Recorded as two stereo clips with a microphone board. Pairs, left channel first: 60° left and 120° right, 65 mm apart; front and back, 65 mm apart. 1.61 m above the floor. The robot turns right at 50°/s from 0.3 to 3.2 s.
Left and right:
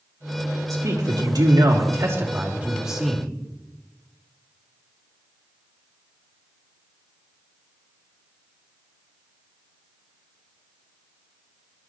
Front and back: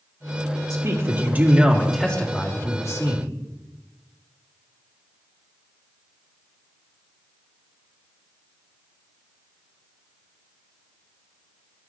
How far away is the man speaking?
About 3 m.